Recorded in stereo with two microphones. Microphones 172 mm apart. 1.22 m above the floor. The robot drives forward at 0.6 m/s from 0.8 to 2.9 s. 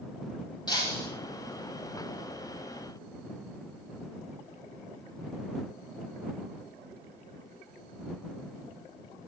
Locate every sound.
0.7 s breaking glass: 25° left (ahead or behind), 7.5 m